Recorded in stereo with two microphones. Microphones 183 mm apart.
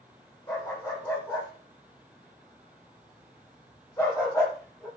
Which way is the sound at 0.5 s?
15° left (ahead or behind).